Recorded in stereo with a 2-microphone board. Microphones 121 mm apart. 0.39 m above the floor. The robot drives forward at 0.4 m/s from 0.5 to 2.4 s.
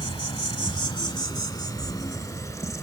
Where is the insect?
50° left (ahead or behind), 1.1 m; by 2.8 s 30° left (ahead or behind), 1.6 m.